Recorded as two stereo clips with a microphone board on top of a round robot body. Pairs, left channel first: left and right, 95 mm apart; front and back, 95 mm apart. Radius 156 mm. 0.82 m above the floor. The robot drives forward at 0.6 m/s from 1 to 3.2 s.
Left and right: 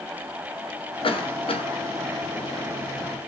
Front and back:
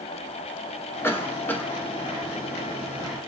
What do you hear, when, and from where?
1.0 s a cough: 65° left, 3 m; by 1.7 s 75° left, 3 m